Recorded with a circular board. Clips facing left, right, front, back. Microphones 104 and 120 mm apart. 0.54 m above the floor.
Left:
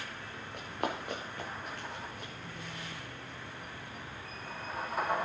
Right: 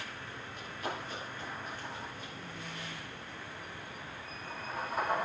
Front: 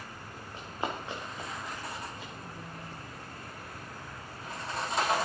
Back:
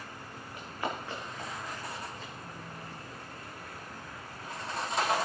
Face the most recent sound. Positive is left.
turn(degrees=75)